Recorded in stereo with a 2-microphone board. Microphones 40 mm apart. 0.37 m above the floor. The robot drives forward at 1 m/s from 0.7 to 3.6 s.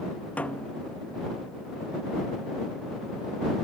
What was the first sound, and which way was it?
A snare drum, 35° left (ahead or behind).